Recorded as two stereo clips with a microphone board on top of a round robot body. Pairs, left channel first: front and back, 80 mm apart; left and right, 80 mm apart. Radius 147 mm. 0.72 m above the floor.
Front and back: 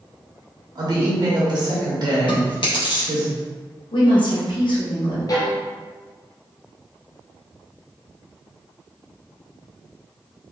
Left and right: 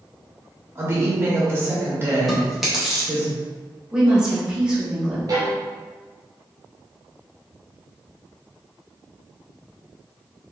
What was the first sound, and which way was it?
A woman speaking, 150° right.